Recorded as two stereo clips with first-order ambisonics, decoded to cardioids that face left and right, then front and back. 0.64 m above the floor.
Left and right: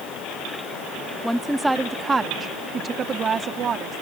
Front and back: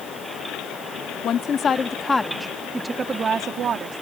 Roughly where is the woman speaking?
Ahead.